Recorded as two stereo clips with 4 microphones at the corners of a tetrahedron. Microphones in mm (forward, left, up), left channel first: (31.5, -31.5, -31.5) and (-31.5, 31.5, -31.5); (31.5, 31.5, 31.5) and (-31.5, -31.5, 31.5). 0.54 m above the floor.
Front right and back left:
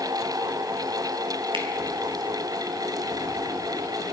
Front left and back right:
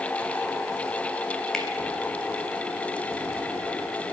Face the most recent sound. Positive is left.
turn(degrees=130)